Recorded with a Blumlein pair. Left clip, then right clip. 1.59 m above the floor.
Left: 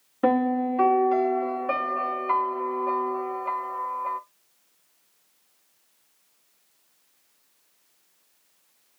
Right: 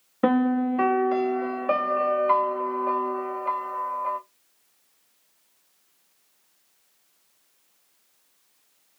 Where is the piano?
10° right, 1.0 m.